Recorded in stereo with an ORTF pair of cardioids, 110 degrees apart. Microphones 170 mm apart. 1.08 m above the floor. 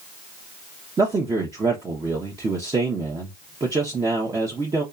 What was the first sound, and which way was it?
A man speaking, 20° right.